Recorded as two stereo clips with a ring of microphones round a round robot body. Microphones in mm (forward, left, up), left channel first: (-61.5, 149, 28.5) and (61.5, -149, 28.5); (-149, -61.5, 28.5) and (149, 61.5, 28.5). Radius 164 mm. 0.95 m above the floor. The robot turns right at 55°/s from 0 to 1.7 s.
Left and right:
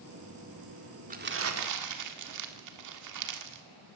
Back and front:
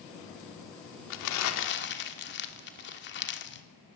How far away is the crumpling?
About 1.9 m.